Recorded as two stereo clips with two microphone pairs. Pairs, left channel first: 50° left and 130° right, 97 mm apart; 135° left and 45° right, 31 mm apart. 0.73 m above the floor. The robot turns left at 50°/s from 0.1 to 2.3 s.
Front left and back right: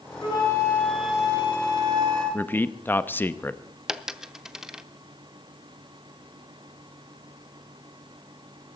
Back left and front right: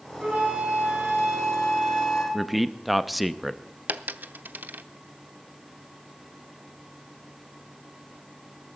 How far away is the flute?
About 7.5 m.